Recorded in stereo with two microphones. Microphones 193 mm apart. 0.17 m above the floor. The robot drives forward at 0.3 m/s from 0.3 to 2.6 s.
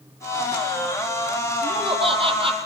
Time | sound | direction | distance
1.6 | laughter | 30° right (ahead or behind) | 6.5 m